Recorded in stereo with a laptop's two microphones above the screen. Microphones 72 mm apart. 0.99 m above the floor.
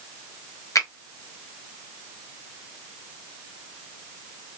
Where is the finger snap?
45° left (ahead or behind), 0.8 m.